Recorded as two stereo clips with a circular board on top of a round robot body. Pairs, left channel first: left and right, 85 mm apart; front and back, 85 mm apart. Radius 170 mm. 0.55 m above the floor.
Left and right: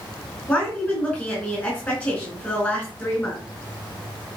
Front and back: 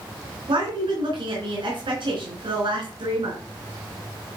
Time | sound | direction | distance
0.5 | a woman speaking | 160° left | 4 m